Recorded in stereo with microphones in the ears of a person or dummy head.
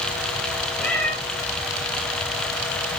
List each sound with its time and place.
0.8 s a cat meowing: 5° left (ahead or behind), 1.3 m